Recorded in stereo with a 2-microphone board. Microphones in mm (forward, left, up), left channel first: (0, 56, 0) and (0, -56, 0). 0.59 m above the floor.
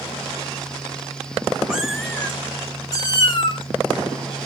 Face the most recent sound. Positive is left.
turn(degrees=50)  # may be behind; listen again after turning